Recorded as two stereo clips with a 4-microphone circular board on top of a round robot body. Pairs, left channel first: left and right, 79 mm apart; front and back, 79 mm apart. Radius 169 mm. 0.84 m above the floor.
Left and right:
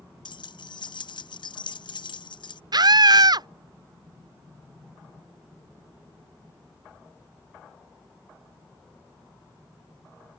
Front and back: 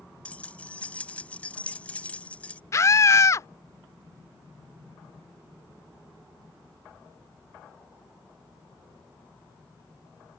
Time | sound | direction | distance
0.2 | keys jangling | 75° left | ?
2.7 | a scream | 55° right | ?